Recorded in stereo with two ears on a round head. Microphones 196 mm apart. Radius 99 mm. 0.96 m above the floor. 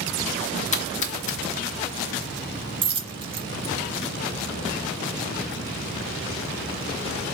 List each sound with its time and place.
0.7 s a splash: 35° left (ahead or behind), 0.8 m
2.8 s a dropped coin: 25° right (ahead or behind), 0.9 m